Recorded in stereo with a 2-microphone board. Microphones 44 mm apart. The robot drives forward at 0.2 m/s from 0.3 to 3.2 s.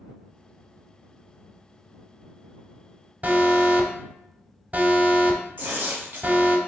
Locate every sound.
3.2 s an alarm: 40° right (ahead or behind), 0.8 m
5.6 s tearing paper: 40° right (ahead or behind), 1.9 m